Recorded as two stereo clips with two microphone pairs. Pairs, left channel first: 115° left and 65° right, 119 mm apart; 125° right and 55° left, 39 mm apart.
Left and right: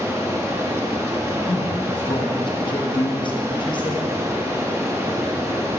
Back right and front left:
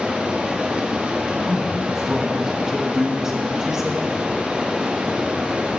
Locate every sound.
0.0 s running water: straight ahead, 0.9 m
1.5 s a man speaking: 115° left, 1.0 m